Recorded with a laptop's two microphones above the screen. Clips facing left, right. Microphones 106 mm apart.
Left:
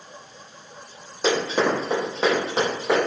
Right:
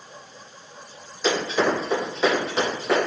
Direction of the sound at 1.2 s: 40° left (ahead or behind).